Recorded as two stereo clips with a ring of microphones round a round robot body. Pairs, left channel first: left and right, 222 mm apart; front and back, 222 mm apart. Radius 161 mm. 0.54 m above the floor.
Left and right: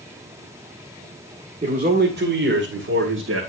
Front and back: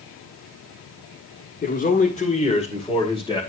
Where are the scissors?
I don't hear scissors.